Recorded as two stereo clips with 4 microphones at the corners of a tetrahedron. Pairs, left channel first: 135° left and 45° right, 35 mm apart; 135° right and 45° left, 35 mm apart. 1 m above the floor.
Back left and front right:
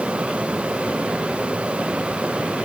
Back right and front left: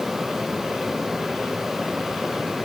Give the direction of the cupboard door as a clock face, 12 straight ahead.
No cupboard door in this recording.